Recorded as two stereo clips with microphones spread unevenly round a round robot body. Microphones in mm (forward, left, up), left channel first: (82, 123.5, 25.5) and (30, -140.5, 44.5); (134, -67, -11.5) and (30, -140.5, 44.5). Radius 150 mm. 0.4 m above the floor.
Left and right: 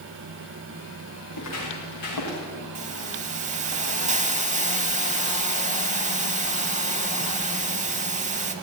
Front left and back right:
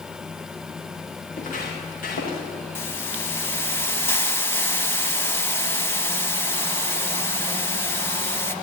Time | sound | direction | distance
1.3 | footsteps | 60° left | 5 m
2.8 | a hiss | 35° right | 1.1 m